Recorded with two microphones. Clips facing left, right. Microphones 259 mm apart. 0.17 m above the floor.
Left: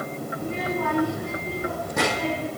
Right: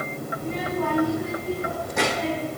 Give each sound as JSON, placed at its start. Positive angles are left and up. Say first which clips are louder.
{"t": 0.3, "sound": "a child speaking", "louder": "right 1 dB", "side_deg": 40, "distance_m": 5.5}